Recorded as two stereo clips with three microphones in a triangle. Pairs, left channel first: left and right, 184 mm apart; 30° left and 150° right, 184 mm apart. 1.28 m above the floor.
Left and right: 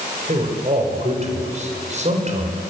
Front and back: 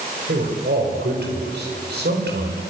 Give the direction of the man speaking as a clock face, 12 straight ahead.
5 o'clock.